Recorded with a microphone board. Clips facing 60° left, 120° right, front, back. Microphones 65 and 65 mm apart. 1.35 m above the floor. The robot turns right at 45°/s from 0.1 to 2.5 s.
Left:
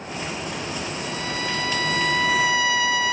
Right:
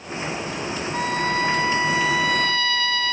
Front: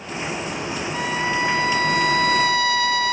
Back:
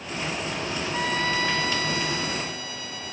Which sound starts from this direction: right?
A trumpet, at 0.9 s.